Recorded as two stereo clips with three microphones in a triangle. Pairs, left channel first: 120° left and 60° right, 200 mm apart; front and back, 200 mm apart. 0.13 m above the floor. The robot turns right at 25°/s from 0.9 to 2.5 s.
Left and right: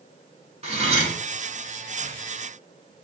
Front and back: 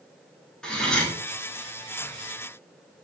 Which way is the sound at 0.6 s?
85° right.